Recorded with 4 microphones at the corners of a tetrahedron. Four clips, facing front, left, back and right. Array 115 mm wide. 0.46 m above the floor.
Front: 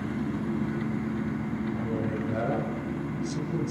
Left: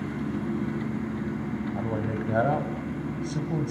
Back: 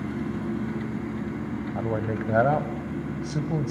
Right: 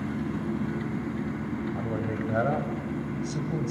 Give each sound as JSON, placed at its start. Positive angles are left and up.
{"t": 1.8, "sound": "a man speaking", "azimuth_deg": 165, "distance_m": 2.0}